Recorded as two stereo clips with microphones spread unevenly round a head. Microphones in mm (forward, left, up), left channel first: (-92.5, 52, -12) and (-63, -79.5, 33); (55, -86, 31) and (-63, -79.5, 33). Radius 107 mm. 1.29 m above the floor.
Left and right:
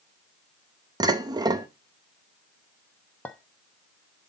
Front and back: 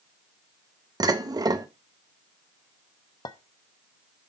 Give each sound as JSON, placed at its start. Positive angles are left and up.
{"t": 1.0, "sound": "dishes clattering", "azimuth_deg": -130, "distance_m": 1.0}
{"t": 3.2, "sound": "a clink", "azimuth_deg": -5, "distance_m": 0.6}